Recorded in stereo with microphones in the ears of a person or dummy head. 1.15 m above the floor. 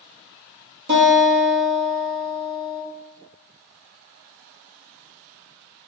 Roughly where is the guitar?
Right.